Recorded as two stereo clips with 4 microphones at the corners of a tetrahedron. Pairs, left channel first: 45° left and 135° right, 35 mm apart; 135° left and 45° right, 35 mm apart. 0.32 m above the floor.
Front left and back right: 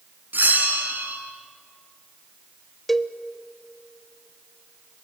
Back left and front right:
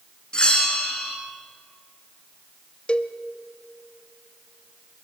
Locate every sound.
0.3 s a bell: 160° right, 3 m
2.9 s a cowbell: 125° left, 0.7 m